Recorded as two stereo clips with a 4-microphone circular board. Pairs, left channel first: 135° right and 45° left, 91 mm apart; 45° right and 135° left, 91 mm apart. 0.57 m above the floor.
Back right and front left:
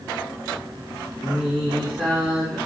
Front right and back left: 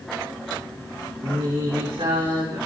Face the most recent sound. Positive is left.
turn(degrees=125)